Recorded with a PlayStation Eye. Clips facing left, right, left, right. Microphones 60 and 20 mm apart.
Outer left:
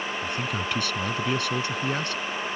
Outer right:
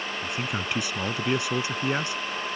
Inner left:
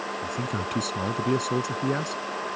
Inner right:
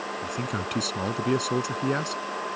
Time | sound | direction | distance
0.2 | a man speaking | 15° right (ahead or behind) | ?